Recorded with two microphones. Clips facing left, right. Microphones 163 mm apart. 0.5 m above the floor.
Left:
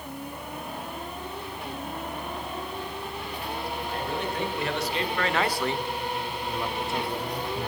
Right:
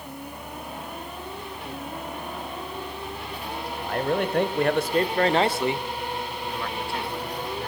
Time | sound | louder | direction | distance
3.8 | a man speaking | right 9 dB | 70° right (ahead or behind) | 2.5 m